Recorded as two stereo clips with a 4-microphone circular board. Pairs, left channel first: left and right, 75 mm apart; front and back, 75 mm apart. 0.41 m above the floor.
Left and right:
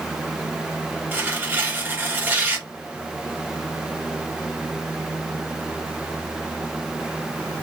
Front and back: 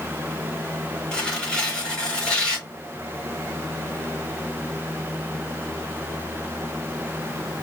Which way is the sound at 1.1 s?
65° right.